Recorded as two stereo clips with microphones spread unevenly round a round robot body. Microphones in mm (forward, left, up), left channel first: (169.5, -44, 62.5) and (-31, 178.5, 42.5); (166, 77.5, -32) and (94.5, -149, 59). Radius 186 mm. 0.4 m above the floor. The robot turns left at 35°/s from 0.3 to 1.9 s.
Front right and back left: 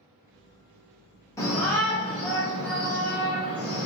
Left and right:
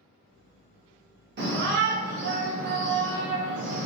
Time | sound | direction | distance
1.4 | a shout | 120° right | 0.9 m